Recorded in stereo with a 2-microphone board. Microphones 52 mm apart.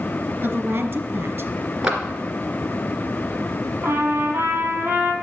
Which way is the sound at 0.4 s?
40° right (ahead or behind).